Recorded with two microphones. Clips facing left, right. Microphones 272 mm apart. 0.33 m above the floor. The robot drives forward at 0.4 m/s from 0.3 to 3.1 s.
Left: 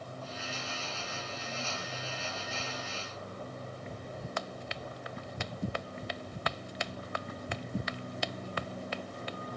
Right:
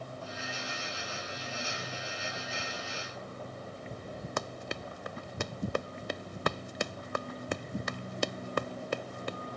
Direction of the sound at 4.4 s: 55° right (ahead or behind).